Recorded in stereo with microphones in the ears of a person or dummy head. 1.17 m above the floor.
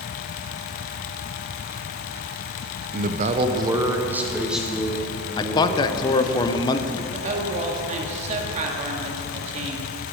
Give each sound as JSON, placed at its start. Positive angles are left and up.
{"t": 2.9, "sound": "a man speaking", "side_deg": -45, "distance_m": 0.7}
{"t": 5.4, "sound": "a man speaking", "side_deg": 20, "distance_m": 0.6}
{"t": 7.1, "sound": "a woman speaking", "side_deg": -40, "distance_m": 1.8}